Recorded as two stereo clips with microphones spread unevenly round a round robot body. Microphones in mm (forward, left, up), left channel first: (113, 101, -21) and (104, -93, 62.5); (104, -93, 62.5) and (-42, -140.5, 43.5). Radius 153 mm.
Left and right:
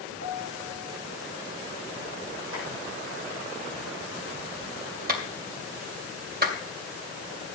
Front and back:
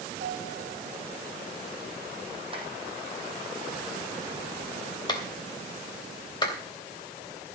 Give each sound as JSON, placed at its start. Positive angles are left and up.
{"t": 0.2, "sound": "a piano", "azimuth_deg": -140, "distance_m": 3.5}
{"t": 2.5, "sound": "tapping", "azimuth_deg": -105, "distance_m": 4.5}
{"t": 5.1, "sound": "a clap", "azimuth_deg": -45, "distance_m": 3.0}